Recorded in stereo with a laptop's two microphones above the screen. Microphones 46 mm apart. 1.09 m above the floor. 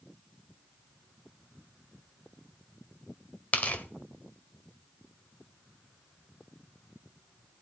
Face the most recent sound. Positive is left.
turn(degrees=30)  # may be behind; listen again after turning